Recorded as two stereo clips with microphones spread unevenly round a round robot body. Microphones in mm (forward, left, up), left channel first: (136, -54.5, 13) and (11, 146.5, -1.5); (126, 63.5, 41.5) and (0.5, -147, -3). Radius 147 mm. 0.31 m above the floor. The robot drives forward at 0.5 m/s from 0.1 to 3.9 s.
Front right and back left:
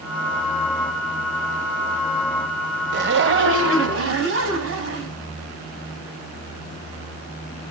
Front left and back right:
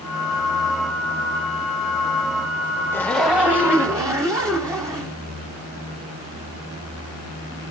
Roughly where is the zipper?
Behind left.